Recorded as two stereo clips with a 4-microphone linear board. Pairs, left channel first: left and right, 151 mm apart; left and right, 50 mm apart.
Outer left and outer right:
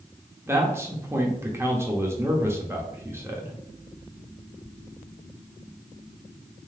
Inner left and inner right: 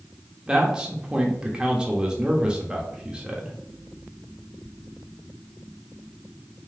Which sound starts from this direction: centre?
A man speaking, at 0.5 s.